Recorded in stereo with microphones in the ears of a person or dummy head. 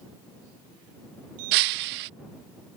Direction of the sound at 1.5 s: 45° right (ahead or behind).